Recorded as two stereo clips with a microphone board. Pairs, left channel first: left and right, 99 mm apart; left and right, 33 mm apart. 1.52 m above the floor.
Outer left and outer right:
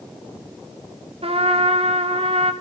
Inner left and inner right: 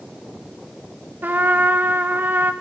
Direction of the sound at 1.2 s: 80° right.